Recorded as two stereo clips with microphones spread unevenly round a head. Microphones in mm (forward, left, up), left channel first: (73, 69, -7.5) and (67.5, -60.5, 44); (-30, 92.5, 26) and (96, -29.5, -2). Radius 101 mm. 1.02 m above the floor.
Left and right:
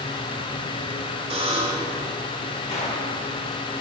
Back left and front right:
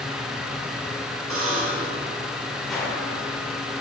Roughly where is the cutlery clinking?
I don't hear cutlery clinking.